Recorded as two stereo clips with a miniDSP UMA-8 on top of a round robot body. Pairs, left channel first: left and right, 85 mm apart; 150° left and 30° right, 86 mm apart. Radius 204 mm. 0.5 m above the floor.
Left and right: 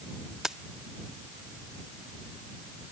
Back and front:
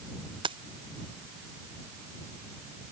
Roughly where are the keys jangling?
Ahead.